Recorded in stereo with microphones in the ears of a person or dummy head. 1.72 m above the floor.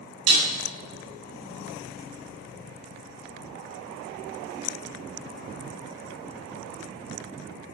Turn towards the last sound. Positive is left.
turn(degrees=-90)